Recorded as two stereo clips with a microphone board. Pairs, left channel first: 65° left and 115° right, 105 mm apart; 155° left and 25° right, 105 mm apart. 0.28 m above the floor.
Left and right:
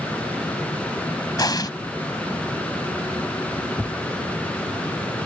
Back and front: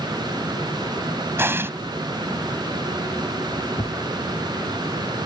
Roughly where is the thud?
Behind left.